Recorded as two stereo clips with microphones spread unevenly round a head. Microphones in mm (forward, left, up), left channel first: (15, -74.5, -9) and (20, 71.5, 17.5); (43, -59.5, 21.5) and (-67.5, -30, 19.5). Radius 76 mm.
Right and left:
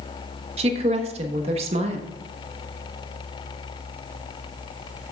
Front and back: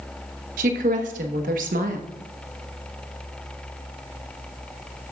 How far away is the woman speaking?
About 1.1 m.